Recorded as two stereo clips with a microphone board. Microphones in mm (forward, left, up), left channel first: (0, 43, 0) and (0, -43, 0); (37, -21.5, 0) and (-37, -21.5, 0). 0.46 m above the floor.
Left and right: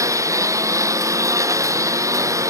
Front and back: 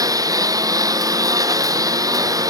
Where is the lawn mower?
145° right.